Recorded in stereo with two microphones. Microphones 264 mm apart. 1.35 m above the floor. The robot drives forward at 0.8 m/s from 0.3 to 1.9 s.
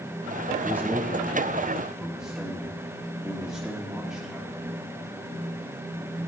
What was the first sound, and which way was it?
A man speaking, 10° right (ahead or behind).